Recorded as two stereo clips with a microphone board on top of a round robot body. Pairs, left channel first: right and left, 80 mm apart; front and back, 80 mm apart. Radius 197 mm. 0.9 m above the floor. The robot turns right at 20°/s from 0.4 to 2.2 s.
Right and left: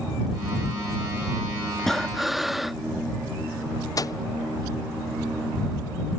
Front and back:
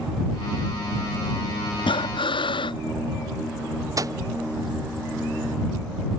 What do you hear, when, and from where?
1.8 s breathing: 5° right; by 2.8 s 5° left
4.0 s a microwave: 135° right